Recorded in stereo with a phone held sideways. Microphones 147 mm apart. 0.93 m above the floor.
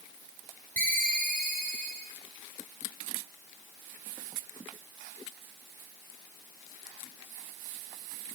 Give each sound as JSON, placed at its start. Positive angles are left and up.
{"t": 0.8, "sound": "a ringtone", "side_deg": -65, "distance_m": 1.5}